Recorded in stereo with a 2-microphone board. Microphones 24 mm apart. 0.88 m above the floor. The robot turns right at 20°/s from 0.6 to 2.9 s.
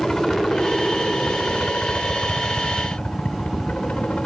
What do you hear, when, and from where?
0.0 s a helicopter: 35° left; by 4.3 s 80° left